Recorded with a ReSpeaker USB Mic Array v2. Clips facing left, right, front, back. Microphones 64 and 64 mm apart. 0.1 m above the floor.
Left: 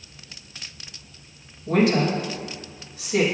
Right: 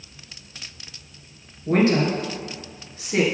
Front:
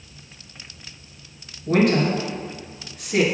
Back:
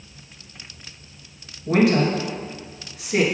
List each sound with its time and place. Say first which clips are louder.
1.7 s a woman speaking: right 1 dB, back 1 dB; 95° right, 1.7 m